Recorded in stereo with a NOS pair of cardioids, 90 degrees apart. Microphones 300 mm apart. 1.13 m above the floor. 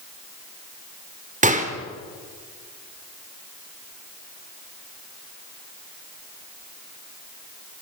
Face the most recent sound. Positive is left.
turn(degrees=-25)